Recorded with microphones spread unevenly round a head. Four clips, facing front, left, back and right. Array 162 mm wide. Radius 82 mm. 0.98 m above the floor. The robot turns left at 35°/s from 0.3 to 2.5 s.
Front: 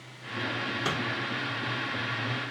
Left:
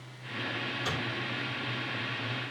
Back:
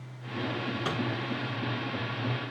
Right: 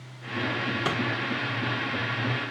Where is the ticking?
I don't hear ticking.